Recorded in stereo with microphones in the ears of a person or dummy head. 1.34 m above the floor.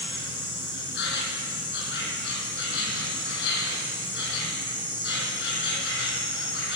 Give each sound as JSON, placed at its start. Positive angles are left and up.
{"t": 0.0, "sound": "an insect", "side_deg": 65, "distance_m": 4.5}